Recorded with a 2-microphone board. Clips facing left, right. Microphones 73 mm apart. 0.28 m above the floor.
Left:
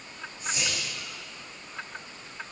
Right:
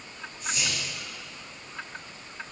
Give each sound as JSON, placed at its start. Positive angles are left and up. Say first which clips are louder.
{"t": 0.4, "sound": "whispering", "louder": "even", "side_deg": 20, "distance_m": 6.0}